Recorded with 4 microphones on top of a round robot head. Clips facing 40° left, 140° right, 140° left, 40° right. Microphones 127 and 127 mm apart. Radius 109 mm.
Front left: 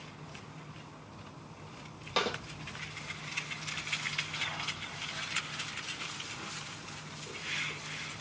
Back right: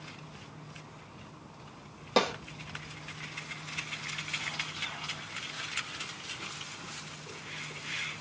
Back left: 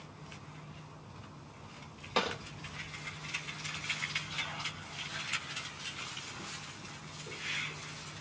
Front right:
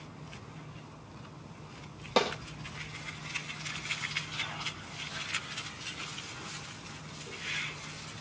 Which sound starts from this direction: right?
A snare drum, at 2.2 s.